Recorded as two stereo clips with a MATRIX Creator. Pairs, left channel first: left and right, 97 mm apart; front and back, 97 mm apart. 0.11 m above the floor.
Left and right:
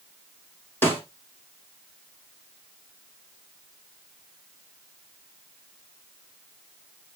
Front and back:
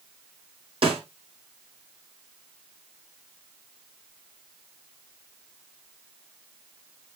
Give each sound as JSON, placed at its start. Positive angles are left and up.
{"t": 0.8, "sound": "a snare drum", "azimuth_deg": 155, "distance_m": 4.0}